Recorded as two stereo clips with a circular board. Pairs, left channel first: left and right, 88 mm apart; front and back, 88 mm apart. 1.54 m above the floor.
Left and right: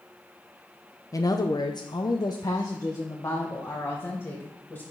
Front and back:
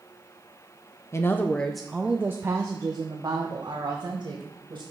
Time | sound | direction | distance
1.1 | a woman speaking | 50° left | 0.6 m